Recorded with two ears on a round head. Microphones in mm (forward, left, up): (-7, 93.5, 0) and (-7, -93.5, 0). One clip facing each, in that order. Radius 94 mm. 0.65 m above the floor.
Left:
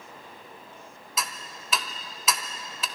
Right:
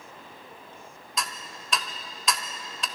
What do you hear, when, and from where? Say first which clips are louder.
1.2 s ticking: even; centre (ahead or behind), 0.7 m